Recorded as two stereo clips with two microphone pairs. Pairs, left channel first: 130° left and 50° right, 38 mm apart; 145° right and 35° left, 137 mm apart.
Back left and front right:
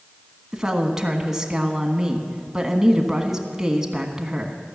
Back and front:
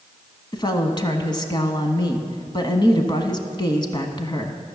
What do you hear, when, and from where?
0.5 s a woman speaking: 120° right, 1.3 m